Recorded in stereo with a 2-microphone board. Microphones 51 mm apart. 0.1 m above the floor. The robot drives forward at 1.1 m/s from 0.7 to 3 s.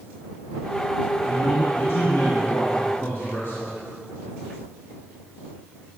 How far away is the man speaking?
About 4 m.